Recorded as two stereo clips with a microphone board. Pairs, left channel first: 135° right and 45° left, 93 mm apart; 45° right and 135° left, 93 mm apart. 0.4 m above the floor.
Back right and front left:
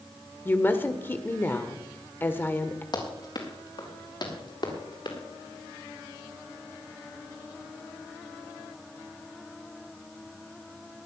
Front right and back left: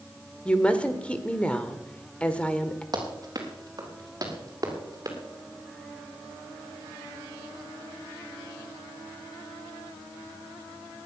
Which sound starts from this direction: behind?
Running footsteps, at 2.9 s.